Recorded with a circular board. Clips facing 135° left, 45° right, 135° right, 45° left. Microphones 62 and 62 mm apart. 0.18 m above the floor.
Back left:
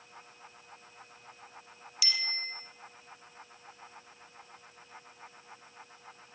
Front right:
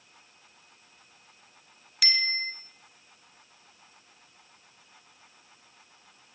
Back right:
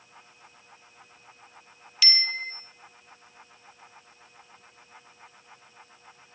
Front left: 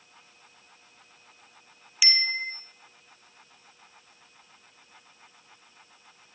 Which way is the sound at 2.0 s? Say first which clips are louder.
Front right 7 dB, front left 2 dB; 25° right.